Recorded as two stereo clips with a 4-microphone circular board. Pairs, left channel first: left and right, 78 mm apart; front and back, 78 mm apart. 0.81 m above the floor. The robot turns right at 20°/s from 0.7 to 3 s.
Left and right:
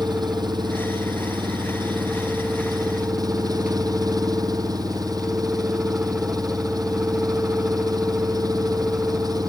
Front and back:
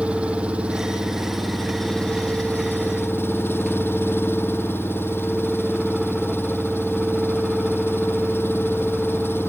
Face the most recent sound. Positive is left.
turn(degrees=-60)